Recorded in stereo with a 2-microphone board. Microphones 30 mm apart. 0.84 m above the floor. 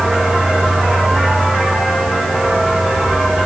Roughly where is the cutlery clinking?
I don't hear cutlery clinking.